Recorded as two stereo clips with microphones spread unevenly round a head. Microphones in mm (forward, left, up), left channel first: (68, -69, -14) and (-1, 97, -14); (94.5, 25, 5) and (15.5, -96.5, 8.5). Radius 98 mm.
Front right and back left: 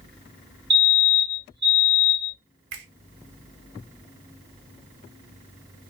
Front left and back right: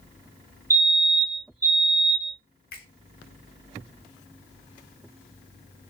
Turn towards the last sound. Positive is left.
turn(degrees=95)